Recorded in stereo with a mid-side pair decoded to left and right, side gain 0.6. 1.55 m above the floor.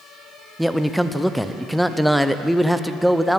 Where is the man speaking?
Straight ahead, 0.5 m.